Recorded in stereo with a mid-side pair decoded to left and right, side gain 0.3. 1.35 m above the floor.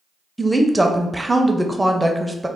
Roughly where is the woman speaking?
Ahead.